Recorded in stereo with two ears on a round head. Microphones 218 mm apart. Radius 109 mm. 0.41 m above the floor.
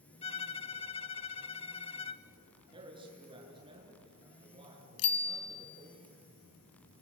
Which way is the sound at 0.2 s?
25° left (ahead or behind).